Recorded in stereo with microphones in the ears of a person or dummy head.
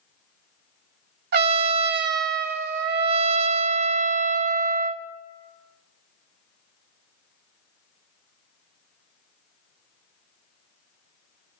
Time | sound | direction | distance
1.3 | a trumpet | 60° right (ahead or behind) | 0.6 m